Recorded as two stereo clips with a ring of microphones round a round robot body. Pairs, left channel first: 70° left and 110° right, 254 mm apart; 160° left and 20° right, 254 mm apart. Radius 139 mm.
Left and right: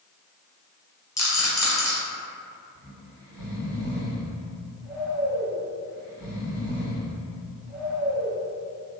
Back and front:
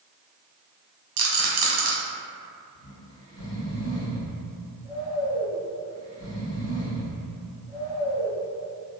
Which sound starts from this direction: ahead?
A rattle, at 1.2 s.